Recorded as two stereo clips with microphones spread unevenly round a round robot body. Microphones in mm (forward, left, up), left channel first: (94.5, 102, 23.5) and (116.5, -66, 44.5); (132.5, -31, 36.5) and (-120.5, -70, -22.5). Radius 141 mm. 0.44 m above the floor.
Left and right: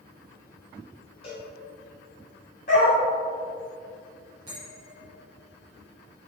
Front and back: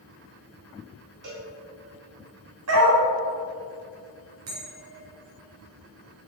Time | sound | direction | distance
1.2 | a cowbell | 150° left | 1.7 m
2.7 | a dog barking | 155° left | 1.2 m
4.5 | a bell | 155° right | 2 m